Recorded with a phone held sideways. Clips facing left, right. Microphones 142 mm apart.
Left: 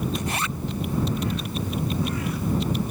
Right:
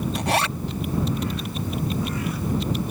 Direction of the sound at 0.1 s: 70° right (ahead or behind).